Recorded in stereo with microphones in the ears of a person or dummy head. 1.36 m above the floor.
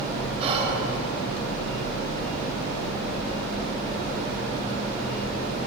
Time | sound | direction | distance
0.4 | whispering | 30° right (ahead or behind) | 1.4 m